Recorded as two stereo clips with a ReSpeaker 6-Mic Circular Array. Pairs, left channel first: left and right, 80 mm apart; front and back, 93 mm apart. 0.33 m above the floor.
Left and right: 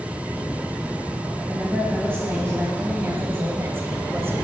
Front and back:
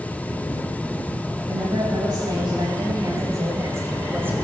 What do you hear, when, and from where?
1.5 s a woman speaking: 150° right, 3 m; by 4.3 s 125° right, 1.6 m